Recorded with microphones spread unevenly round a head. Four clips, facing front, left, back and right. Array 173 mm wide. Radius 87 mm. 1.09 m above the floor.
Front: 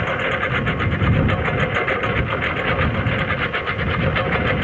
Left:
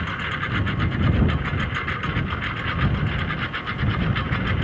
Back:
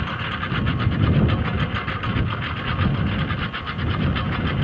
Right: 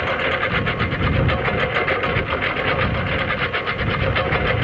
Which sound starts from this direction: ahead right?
A lawn mower, at 0.0 s.